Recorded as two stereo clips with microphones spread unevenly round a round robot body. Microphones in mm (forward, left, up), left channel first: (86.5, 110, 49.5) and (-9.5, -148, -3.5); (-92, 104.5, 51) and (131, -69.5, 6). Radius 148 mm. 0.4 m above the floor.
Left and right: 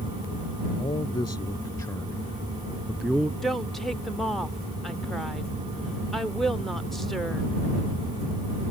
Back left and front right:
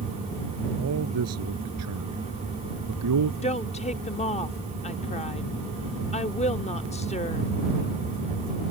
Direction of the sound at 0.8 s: 5° right.